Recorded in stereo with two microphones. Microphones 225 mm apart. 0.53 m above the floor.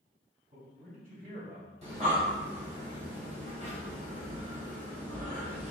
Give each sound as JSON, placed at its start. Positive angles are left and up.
{"t": 0.5, "sound": "a man speaking", "side_deg": -35, "distance_m": 3.0}
{"t": 1.8, "sound": "breathing", "side_deg": -30, "distance_m": 2.0}